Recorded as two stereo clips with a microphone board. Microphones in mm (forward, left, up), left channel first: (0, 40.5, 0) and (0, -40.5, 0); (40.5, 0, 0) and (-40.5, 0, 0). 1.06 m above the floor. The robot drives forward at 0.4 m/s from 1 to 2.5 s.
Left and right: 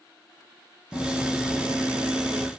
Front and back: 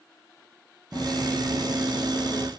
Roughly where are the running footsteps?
Behind left.